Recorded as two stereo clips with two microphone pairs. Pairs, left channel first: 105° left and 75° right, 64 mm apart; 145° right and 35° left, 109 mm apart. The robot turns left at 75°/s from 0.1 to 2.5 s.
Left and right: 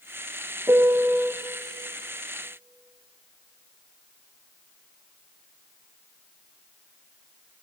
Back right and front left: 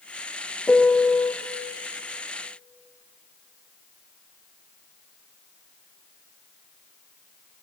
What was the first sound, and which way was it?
A piano, 60° right.